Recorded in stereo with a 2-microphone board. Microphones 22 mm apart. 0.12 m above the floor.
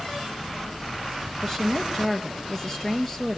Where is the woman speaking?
20° left (ahead or behind), 2.5 m.